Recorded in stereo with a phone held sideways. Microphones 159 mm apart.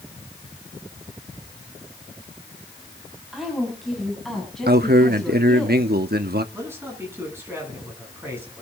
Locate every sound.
3.3 s a woman speaking: centre (ahead or behind), 6 m; by 5.7 s 5° left (ahead or behind), 8 m
4.7 s a man speaking: 75° right (ahead or behind), 1.2 m
6.5 s a man speaking: 15° right (ahead or behind), 9 m